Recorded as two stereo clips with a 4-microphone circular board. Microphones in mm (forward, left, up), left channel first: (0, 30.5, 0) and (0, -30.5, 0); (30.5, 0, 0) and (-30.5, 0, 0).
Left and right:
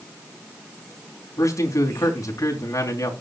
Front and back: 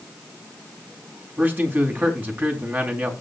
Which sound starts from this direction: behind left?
A man speaking, at 1.4 s.